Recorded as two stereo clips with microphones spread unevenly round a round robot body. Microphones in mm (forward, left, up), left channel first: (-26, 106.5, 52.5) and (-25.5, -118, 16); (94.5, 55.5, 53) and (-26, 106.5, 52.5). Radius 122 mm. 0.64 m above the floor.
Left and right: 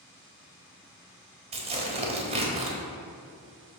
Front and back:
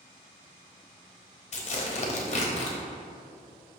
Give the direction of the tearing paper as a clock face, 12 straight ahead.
1 o'clock.